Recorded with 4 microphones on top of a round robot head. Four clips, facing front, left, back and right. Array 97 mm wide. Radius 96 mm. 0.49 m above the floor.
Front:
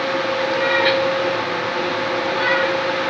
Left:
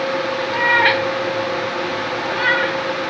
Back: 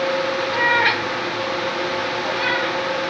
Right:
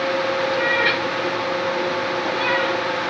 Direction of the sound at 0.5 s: 125° left.